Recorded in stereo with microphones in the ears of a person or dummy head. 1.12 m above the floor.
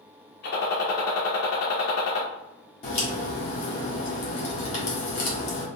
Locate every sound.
0.4 s a gunshot: 60° left (ahead or behind), 0.9 m
2.8 s a crack: 40° left (ahead or behind), 1.5 m